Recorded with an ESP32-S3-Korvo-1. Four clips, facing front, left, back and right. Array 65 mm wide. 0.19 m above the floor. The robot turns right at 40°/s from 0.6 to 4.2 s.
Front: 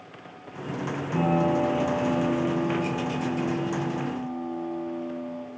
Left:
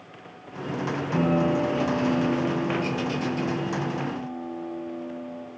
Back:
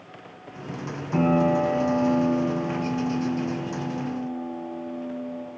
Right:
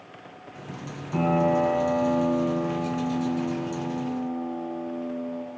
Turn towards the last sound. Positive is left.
turn(degrees=-60)